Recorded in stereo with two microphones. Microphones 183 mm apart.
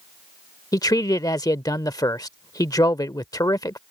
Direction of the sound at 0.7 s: 20° left (ahead or behind).